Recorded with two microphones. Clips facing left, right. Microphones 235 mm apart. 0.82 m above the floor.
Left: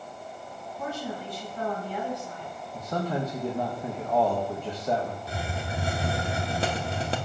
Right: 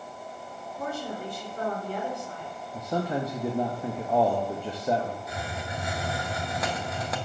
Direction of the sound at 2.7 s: 10° right (ahead or behind).